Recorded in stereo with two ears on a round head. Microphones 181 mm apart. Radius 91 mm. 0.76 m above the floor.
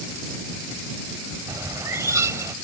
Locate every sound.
1.5 s a bird: 15° right (ahead or behind)